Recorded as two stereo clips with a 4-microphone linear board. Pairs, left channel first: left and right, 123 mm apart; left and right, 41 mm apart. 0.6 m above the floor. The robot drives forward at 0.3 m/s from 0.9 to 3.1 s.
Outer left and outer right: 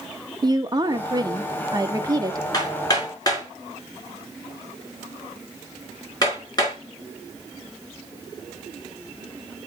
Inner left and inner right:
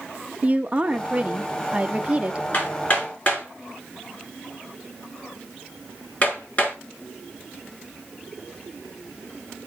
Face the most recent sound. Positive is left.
turn(degrees=30)  # may be behind; listen again after turning